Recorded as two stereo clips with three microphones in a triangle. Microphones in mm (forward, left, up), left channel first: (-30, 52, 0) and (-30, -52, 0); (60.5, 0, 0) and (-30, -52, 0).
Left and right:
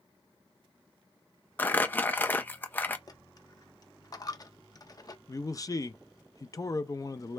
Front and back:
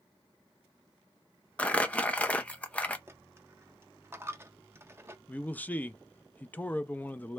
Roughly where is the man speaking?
Left.